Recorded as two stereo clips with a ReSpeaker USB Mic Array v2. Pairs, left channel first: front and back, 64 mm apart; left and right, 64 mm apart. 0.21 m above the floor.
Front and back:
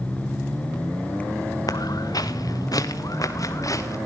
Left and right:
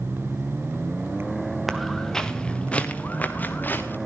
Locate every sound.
1.7 s footsteps: straight ahead, 1.7 m; by 4.0 s 35° left, 3 m